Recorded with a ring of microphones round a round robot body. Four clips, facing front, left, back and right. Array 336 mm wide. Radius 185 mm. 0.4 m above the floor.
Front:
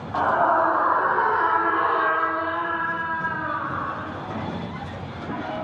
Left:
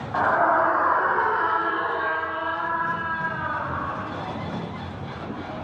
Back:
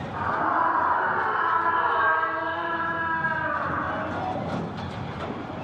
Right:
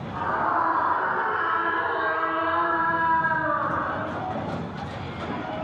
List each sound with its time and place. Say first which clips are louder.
0.1 s a scream: left 5 dB, front 5 dB; 45° left, 3 m; by 4.2 s 105° right, 3 m